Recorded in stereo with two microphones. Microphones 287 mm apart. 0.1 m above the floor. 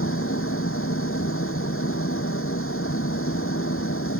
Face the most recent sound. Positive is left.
turn(degrees=50)  # may be behind; listen again after turning